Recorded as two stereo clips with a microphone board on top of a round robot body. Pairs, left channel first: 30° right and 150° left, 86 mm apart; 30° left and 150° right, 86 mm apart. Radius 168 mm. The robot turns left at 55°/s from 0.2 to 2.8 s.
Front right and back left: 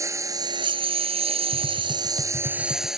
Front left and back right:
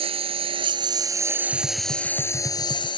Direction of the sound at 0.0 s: 155° right.